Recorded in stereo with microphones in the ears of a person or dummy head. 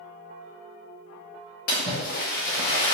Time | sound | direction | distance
1.7 | a splash | 50° left (ahead or behind) | 1.8 m